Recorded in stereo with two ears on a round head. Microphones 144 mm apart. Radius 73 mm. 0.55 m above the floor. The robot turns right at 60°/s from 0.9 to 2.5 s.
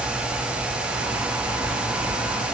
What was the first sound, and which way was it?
Only background noise.